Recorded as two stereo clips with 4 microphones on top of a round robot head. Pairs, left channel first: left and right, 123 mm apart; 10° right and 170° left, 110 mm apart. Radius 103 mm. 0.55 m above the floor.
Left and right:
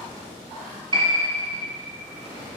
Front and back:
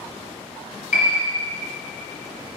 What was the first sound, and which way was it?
A piano, 30° right.